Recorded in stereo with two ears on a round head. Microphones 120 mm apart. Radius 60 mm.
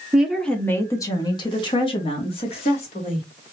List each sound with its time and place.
0.1 s a woman speaking: 10° right (ahead or behind), 0.8 m; by 3.3 s 50° left (ahead or behind), 2.5 m